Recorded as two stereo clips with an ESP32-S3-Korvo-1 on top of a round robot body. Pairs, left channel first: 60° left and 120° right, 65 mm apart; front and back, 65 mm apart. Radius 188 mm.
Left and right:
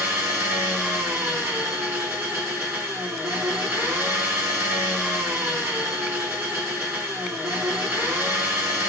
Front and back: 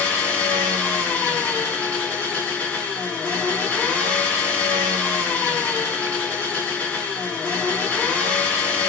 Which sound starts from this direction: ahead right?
An engine running, at 0.0 s.